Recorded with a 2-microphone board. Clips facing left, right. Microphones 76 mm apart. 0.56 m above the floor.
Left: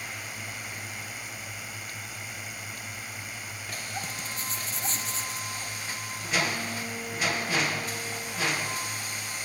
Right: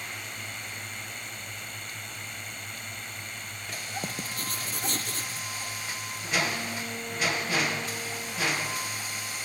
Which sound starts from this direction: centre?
A drone, at 0.0 s.